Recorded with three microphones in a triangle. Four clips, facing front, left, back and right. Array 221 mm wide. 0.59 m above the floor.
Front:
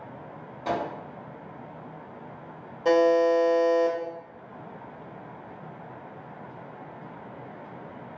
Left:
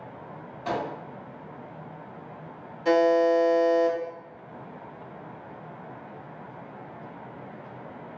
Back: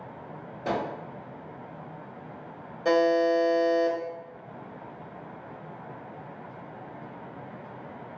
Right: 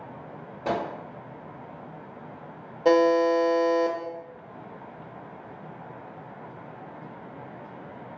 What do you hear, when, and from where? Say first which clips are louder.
0.7 s a microwave: right 2 dB, front 1 dB; 115° right, 1.1 m
2.9 s a buzzer: right 1 dB, front 2 dB; 95° right, 0.6 m